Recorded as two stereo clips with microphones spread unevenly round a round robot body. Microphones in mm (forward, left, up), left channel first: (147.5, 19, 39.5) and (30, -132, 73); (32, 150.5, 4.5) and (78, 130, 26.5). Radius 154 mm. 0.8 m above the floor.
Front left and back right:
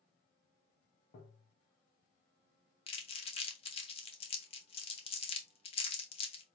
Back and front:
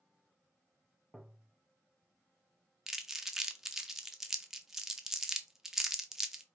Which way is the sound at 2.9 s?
85° left.